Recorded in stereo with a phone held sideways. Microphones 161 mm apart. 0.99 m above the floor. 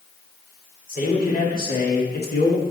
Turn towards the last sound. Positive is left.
turn(degrees=70)  # may be behind; listen again after turning